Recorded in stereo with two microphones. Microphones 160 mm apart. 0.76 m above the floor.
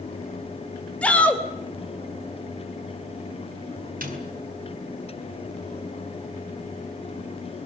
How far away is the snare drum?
About 6 m.